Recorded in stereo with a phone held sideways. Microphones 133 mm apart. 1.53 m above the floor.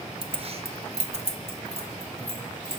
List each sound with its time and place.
0.2 s keys jangling: 45° right (ahead or behind), 0.5 m; by 2.8 s 50° right (ahead or behind), 2 m